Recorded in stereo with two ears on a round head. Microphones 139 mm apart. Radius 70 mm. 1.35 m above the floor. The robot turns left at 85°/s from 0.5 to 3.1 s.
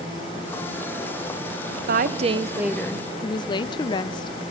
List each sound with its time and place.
1.9 s a woman speaking: 105° right, 0.5 m; by 4.4 s 150° left, 0.5 m